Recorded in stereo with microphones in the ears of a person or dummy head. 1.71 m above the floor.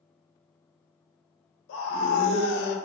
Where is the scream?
85° left, 1.3 m; by 2.8 s 60° left (ahead or behind), 1.0 m.